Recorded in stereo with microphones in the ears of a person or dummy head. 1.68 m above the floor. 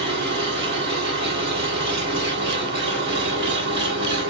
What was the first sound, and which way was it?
An engine running, 65° right (ahead or behind).